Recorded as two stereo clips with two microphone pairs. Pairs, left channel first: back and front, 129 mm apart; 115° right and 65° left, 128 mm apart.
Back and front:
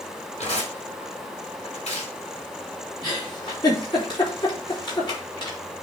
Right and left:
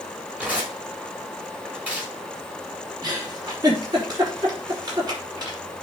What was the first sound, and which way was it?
Tearing paper, 145° left.